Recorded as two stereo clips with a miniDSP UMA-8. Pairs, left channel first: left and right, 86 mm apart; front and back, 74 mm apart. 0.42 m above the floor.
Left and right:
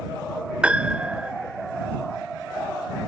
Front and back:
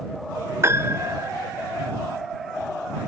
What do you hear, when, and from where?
0.6 s a piano: 160° right